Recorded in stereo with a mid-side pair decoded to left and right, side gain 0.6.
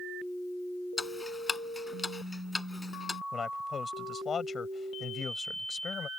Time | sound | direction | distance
1.0 | ticking | 15° left | ?
3.3 | a man speaking | 35° left | ?